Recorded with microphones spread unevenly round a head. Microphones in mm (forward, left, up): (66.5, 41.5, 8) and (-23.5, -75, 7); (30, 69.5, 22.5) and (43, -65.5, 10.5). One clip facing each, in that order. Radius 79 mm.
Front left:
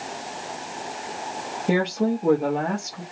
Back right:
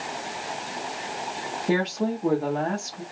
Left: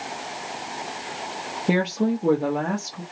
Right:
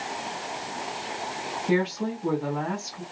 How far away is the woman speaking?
About 1.0 m.